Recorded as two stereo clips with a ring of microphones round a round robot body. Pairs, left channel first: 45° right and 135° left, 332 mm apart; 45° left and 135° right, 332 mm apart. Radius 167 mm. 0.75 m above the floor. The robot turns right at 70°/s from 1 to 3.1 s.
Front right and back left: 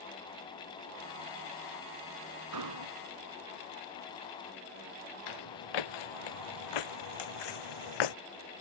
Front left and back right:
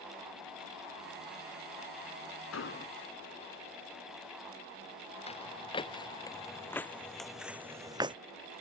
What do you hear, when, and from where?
2.5 s an explosion: 95° left; by 3.0 s 125° left
5.3 s footsteps: 30° right; by 8.2 s 60° right